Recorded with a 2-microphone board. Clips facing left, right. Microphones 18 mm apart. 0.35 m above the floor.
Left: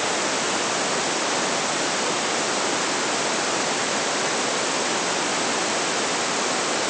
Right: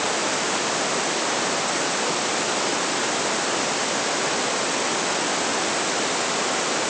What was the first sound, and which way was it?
Only background noise.